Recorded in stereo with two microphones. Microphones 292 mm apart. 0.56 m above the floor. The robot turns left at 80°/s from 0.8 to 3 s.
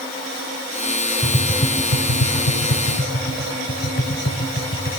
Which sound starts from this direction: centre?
Tapping, at 1.2 s.